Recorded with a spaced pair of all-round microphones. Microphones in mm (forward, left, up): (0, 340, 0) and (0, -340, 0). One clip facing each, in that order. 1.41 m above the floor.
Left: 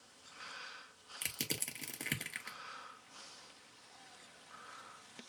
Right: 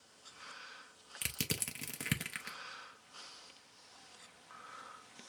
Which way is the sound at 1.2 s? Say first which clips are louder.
Right 2 dB; 40° right (ahead or behind).